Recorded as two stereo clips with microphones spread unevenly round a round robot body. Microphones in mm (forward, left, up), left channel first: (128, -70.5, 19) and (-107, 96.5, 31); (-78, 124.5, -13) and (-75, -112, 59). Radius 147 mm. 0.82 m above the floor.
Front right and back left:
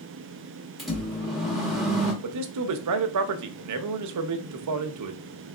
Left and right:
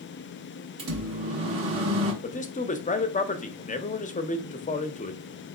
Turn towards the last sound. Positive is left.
turn(degrees=135)